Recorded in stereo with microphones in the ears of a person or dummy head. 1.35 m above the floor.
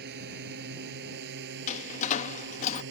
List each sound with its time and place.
0.0 s a drone: 55° right (ahead or behind); by 2.9 s 65° right (ahead or behind)
1.7 s a door slam: 40° left (ahead or behind)